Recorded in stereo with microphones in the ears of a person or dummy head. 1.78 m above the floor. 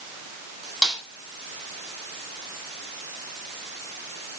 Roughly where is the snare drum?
Centre.